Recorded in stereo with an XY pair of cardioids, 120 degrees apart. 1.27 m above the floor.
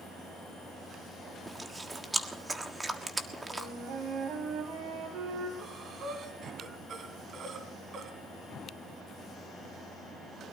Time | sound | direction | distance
1.5 | chewing | 15° right | 1.6 m
3.5 | a flute | 65° right | 3.5 m
5.6 | breathing | 45° right | 3.5 m